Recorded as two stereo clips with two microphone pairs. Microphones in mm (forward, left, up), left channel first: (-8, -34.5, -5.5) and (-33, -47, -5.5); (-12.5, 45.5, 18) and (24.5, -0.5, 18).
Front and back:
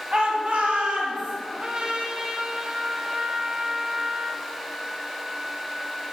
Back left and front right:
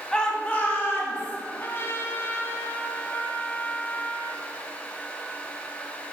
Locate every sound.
0.1 s a shout: 160° right, 1.4 m; by 1.4 s straight behind, 3 m
1.5 s a trumpet: 165° left, 0.8 m